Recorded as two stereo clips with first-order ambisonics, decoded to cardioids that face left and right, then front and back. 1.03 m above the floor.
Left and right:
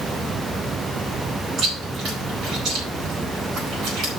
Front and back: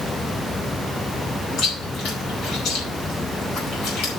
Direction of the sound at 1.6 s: 40° right.